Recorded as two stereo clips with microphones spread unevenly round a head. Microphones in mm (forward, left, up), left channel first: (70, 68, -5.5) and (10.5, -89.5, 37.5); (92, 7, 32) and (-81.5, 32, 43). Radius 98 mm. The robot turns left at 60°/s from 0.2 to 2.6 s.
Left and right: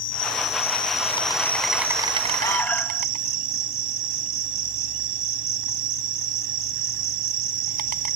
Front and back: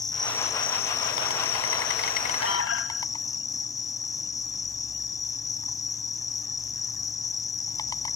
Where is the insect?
60° left; by 8.2 s 80° right.